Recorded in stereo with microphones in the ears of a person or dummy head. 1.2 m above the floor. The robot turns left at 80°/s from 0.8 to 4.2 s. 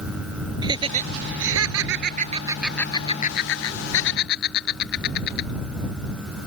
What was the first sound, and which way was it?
Laughter, 30° right (ahead or behind).